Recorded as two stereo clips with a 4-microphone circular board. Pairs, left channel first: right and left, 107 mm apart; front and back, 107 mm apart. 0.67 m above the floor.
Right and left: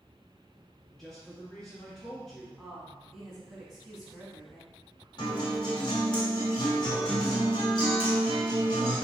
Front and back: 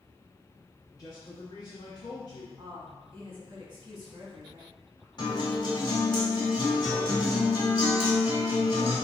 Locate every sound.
1.0 s a man speaking: 10° right, 0.7 m
2.6 s a woman speaking: straight behind, 1.0 m
5.2 s a guitar: 45° right, 1.5 m